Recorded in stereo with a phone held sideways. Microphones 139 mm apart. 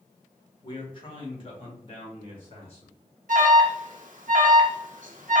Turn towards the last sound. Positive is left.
turn(degrees=-70)  # may be behind; listen again after turning